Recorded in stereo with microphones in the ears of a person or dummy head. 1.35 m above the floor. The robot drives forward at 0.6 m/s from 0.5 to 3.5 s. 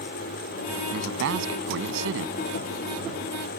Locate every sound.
0.9 s a man speaking: 70° right (ahead or behind)